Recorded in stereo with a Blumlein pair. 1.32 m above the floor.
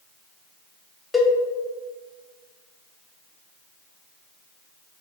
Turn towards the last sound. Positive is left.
turn(degrees=10)